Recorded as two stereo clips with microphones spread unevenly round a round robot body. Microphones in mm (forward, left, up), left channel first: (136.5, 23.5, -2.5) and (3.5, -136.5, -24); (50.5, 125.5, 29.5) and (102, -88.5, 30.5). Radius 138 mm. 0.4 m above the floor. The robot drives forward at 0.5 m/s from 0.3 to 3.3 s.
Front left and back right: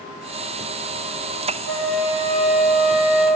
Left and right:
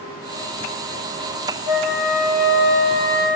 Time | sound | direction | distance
1.7 | a flute | 95° left | 0.5 m